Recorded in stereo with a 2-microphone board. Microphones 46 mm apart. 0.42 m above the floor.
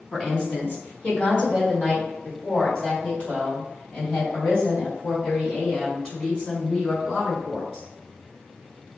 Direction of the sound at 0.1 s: 25° left (ahead or behind).